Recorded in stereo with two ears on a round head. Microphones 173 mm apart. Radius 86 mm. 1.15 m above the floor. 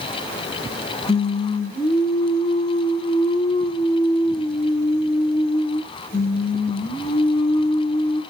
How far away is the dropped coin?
No dropped coin in this recording.